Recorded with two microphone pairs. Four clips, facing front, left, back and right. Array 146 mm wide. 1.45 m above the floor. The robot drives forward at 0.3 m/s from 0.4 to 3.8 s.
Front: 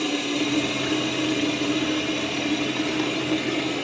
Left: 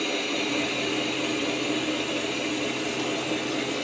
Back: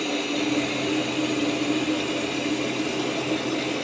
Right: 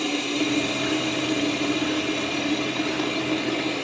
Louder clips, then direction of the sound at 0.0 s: Right 3 dB, front 1 dB; 75° right.